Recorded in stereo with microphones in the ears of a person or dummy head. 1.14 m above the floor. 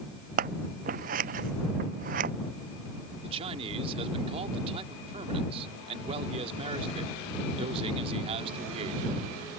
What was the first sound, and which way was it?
Scissors, 45° right (ahead or behind).